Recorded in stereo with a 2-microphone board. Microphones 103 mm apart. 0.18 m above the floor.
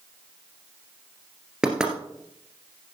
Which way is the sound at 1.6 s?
5° right (ahead or behind).